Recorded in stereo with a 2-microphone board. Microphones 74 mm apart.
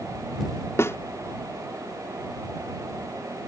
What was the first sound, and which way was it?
A snare drum, 40° left (ahead or behind).